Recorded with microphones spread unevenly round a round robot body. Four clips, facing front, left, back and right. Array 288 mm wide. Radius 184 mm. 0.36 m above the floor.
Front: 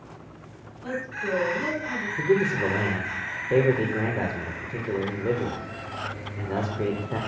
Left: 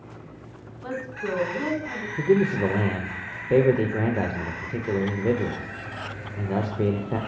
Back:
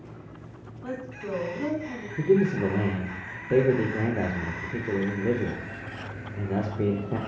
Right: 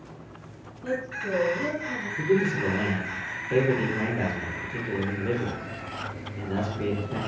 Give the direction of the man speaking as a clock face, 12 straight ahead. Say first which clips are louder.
Left 3 dB, back 1 dB; 9 o'clock.